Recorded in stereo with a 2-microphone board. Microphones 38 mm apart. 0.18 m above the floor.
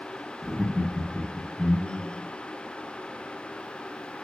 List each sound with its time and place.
0.4 s laughter: 25° right (ahead or behind), 1.4 m